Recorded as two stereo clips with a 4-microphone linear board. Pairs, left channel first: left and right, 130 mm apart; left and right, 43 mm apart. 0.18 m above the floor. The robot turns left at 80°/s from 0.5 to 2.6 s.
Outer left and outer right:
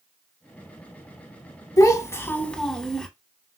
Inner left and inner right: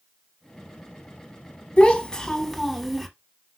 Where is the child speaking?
25° left (ahead or behind), 0.6 m; by 3.1 s 5° left (ahead or behind), 0.6 m.